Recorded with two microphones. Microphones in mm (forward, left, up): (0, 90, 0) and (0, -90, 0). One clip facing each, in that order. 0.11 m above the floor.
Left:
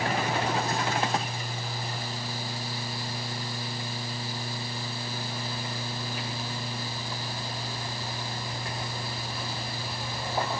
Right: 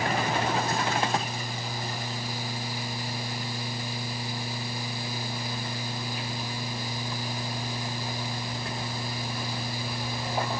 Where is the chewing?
No chewing in this recording.